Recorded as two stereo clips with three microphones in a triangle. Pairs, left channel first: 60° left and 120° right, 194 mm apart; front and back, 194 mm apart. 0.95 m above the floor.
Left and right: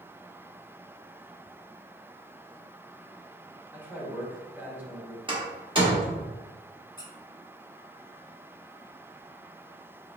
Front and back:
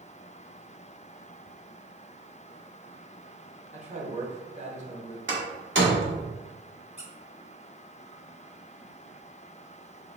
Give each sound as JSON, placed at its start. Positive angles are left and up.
{"t": 3.7, "sound": "a man speaking", "azimuth_deg": 165, "distance_m": 1.0}
{"t": 5.3, "sound": "a door slam", "azimuth_deg": 180, "distance_m": 1.2}
{"t": 7.0, "sound": "a squeak", "azimuth_deg": 10, "distance_m": 0.9}